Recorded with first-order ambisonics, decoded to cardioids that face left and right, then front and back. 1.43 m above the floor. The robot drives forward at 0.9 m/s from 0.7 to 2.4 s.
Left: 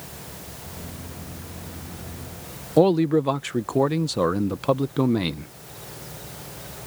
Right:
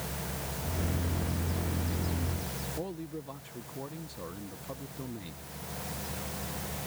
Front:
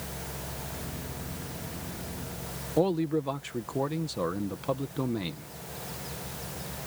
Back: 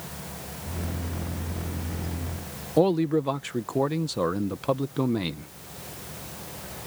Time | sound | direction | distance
2.8 | a man speaking | 105° left | ?